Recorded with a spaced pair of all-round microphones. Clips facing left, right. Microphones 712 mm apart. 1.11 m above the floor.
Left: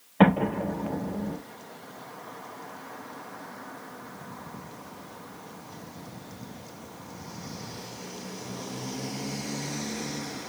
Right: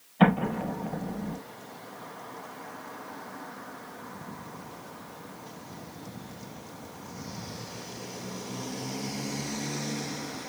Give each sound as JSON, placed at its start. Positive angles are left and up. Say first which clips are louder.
{"t": 0.2, "sound": "an explosion", "louder": "left 2 dB", "side_deg": 75, "distance_m": 4.5}